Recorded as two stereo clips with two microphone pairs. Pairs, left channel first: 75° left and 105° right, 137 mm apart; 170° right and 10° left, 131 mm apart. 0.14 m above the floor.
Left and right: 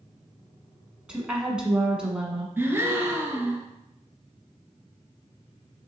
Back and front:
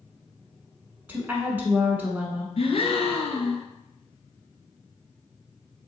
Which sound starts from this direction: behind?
A gasp, at 2.6 s.